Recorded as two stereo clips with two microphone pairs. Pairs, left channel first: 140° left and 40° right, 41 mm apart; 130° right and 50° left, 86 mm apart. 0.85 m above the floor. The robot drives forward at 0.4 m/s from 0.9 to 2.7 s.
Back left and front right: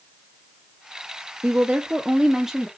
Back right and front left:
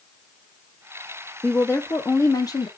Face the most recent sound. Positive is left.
turn(degrees=-125)